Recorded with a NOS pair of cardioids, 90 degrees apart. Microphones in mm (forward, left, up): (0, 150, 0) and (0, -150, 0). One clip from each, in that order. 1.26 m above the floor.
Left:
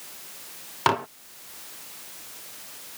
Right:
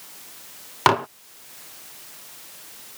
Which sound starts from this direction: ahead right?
Dishes clattering, at 0.9 s.